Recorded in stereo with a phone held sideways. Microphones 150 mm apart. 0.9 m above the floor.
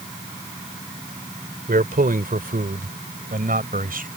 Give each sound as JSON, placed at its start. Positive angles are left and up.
{"t": 1.7, "sound": "a man speaking", "side_deg": -75}